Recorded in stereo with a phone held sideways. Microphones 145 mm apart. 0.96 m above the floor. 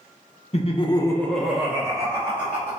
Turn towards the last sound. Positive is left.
turn(degrees=-45)  # may be behind; listen again after turning